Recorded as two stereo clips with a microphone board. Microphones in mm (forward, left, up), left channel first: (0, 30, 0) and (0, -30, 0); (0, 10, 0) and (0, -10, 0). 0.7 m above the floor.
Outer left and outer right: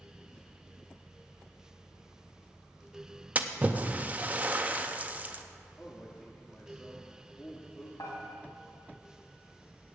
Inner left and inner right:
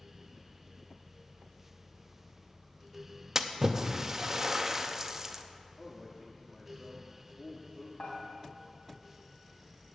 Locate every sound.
3.4 s a splash: 25° right (ahead or behind), 0.6 m
5.8 s a man speaking: 15° left (ahead or behind), 1.2 m
8.0 s dishes clattering: 70° left (ahead or behind), 3 m